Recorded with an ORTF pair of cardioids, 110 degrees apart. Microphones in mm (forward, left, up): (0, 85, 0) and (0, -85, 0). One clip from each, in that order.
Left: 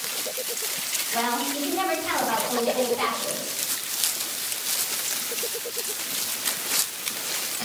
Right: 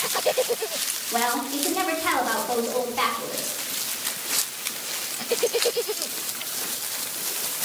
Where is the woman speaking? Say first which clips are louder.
Right 2 dB; 70° right, 3 m.